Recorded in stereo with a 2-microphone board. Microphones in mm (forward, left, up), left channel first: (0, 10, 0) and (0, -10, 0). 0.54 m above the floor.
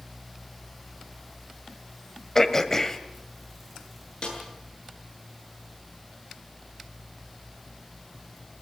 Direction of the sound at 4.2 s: 50° left (ahead or behind).